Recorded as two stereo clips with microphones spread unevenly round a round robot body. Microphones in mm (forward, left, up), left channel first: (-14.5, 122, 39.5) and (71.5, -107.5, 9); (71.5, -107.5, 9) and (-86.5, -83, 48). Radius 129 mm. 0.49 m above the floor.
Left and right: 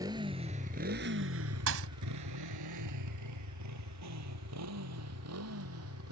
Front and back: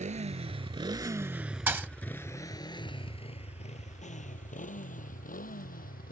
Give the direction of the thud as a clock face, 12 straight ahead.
4 o'clock.